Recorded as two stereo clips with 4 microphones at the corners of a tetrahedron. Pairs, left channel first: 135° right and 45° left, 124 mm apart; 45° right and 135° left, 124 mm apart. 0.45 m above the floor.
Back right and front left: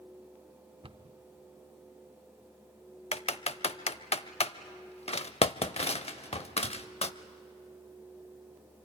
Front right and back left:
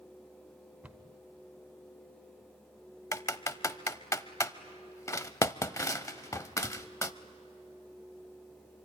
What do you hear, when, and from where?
0.8 s a cupboard door: 60° left, 0.7 m
3.1 s typing on a keyboard: 110° right, 0.6 m